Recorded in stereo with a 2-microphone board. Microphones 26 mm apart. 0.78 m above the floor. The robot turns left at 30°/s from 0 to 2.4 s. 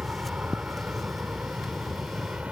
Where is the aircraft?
50° right (ahead or behind); by 2.5 s 55° right (ahead or behind).